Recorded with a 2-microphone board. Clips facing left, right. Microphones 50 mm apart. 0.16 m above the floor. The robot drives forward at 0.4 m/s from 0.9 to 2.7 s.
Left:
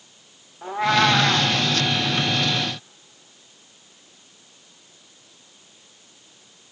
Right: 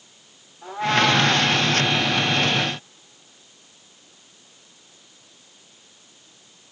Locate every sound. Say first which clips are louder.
0.6 s a cat meowing: left 1 dB; 40° left (ahead or behind), 4.5 m